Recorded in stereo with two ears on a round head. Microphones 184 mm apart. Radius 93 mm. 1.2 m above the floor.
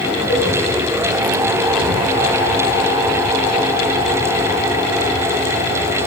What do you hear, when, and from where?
0.3 s a cowbell: 70° left (ahead or behind), 7 m